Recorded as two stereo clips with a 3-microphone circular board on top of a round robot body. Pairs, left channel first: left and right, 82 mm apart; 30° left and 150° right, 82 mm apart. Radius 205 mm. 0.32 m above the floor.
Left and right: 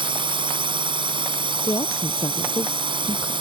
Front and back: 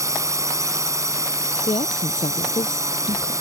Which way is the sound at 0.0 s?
100° right.